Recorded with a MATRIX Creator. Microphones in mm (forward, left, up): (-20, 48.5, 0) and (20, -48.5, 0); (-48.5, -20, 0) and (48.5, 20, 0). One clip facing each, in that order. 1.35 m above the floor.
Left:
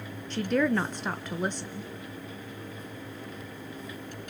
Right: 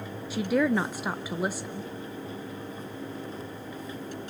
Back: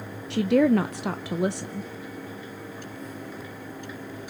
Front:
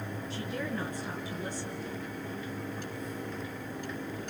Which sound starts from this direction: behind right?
A woman speaking, at 0.3 s.